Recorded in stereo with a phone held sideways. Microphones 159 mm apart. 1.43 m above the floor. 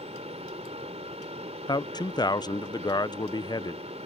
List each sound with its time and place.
0.0 s a fan: 40° right (ahead or behind)
1.7 s a man speaking: 25° left (ahead or behind)